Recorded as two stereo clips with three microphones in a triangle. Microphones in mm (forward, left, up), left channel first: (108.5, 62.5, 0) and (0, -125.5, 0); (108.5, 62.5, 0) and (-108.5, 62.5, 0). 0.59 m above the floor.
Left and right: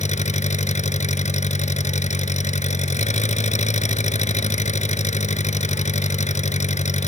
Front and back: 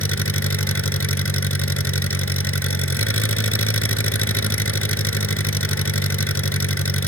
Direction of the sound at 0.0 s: Straight ahead.